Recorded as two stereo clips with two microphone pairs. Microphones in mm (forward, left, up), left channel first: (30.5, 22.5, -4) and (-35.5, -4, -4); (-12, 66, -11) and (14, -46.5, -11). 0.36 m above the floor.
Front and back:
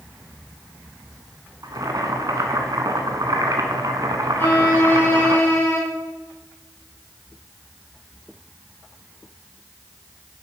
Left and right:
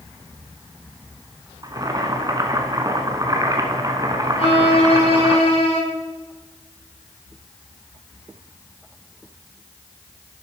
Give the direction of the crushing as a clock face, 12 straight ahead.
I don't hear crushing.